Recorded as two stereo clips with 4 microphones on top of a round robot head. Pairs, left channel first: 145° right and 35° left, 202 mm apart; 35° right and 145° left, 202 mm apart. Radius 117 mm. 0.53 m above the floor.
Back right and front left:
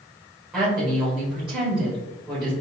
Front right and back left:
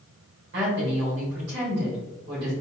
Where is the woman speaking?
120° left, 2.0 m.